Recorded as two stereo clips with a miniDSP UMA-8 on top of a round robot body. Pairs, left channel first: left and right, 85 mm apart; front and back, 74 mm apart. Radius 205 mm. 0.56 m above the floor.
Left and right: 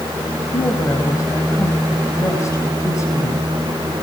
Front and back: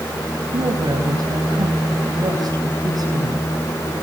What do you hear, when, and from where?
0.5 s a woman speaking: 145° left, 5 m